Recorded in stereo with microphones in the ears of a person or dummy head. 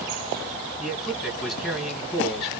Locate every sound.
0.8 s a man speaking: 5° left (ahead or behind), 1.9 m